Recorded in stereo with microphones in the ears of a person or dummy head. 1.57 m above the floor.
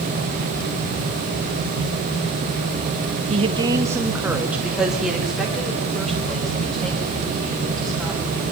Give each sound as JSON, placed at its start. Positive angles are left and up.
{"t": 3.3, "sound": "a woman speaking", "side_deg": -35, "distance_m": 0.8}